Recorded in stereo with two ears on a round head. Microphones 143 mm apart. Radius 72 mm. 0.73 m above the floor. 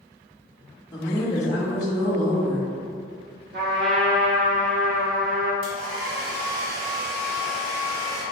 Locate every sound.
0.9 s a woman speaking: 20° left (ahead or behind), 0.8 m
3.5 s a trumpet: 65° right (ahead or behind), 1.8 m
5.6 s a hair dryer: 70° right (ahead or behind), 1.9 m